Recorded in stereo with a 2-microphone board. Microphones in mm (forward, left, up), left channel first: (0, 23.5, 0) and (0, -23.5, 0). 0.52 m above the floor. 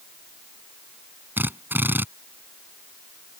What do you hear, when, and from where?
1.4 s a drill: 50° right (ahead or behind)